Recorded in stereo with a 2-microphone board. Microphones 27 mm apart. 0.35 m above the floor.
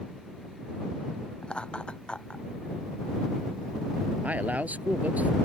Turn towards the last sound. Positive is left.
turn(degrees=-80)